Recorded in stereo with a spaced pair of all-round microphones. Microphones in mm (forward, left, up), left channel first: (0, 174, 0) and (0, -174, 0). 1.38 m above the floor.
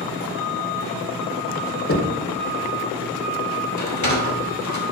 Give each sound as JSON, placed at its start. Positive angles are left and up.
{"t": 1.9, "sound": "knocking", "side_deg": 40, "distance_m": 1.0}
{"t": 3.8, "sound": "a sliding door", "side_deg": 55, "distance_m": 1.4}